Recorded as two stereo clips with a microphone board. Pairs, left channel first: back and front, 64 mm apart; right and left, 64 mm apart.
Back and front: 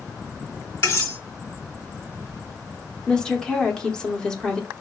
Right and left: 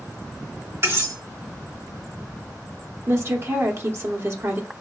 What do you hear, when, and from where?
0.8 s cutlery clinking: 135° left, 1.7 m
3.1 s a woman speaking: 110° left, 0.8 m